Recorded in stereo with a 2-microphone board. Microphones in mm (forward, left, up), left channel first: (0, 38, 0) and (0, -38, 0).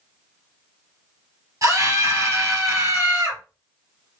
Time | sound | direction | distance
1.6 | a scream | 45° right (ahead or behind) | 2.5 m